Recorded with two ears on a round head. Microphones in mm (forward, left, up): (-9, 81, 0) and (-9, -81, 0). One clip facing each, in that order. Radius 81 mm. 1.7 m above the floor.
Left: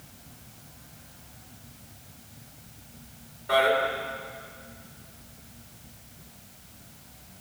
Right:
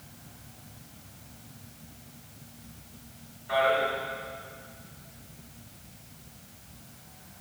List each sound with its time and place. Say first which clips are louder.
3.5 s a man speaking: left 2 dB; 60° left (ahead or behind), 7.5 m